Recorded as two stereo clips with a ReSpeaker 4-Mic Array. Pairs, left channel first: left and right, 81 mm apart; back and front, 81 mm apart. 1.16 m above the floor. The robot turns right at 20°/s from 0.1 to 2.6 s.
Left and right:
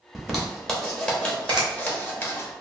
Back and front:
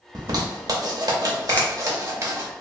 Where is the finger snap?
110° right, 0.6 m.